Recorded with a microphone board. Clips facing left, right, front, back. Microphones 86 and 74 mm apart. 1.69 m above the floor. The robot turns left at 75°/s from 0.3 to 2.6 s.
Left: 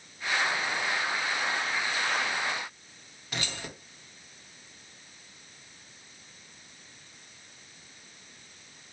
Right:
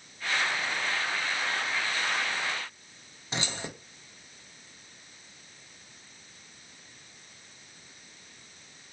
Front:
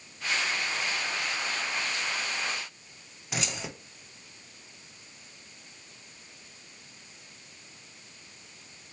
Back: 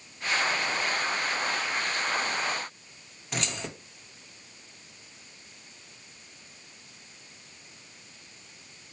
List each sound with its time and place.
3.3 s keys jangling: 80° right, 0.8 m